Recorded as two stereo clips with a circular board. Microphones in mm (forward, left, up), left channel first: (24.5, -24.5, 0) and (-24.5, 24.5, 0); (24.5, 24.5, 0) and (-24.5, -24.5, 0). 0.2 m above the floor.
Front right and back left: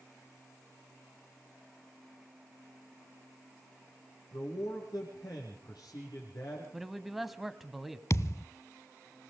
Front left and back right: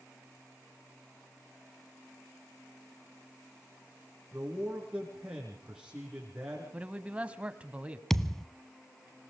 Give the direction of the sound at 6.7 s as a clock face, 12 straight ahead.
5 o'clock.